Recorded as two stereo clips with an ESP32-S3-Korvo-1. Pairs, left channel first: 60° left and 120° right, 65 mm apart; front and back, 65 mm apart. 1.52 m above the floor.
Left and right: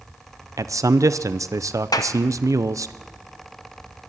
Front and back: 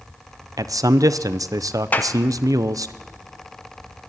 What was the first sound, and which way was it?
A man speaking, 155° right.